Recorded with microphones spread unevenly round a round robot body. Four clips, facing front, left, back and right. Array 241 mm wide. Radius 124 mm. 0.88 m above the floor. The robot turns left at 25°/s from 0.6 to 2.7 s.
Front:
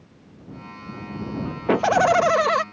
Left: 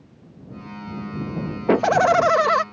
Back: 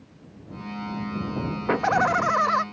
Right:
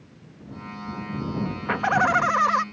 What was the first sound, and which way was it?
Laughter, 80° left.